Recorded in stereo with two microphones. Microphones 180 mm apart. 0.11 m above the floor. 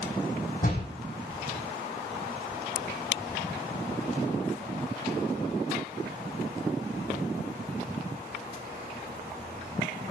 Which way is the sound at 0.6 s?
50° left (ahead or behind).